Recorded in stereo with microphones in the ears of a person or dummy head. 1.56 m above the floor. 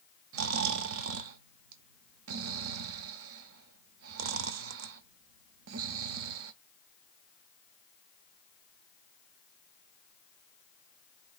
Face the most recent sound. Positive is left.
turn(degrees=-70)  # may be behind; listen again after turning